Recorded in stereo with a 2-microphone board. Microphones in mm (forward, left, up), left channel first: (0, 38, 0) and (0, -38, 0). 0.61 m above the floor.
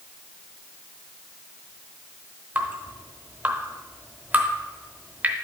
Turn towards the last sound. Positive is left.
turn(degrees=-25)  # may be behind; listen again after turning